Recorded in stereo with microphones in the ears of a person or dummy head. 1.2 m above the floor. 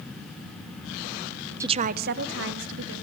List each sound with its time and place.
1.6 s a woman speaking: 10° right (ahead or behind), 0.6 m; by 3.0 s 70° right (ahead or behind), 2.5 m